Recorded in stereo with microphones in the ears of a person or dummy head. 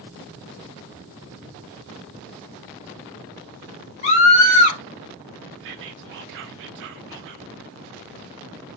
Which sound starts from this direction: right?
Whispering, at 5.6 s.